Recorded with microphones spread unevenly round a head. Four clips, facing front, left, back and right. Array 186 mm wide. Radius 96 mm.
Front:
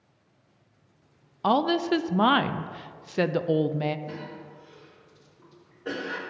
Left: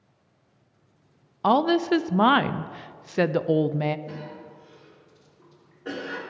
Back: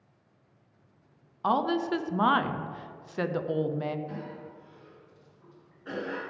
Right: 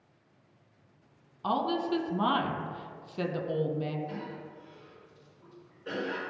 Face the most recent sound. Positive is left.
turn(degrees=40)